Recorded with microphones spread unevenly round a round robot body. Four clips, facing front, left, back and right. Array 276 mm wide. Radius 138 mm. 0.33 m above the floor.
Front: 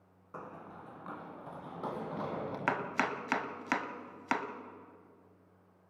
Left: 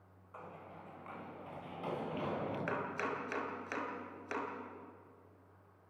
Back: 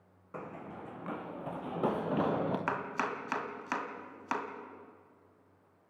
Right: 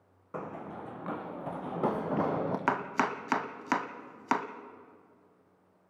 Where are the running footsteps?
100° right, 1.5 m; by 2.6 s 130° right, 3 m.